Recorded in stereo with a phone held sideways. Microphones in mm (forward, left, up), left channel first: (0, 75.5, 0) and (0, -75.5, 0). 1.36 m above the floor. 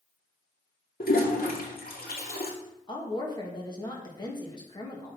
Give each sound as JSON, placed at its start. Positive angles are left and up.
{"t": 1.0, "sound": "a toilet flushing", "side_deg": 80, "distance_m": 2.0}
{"t": 2.9, "sound": "a woman speaking", "side_deg": 30, "distance_m": 2.0}